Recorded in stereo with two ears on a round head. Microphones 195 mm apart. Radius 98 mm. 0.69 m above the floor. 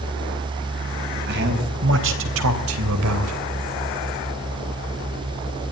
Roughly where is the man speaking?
Right.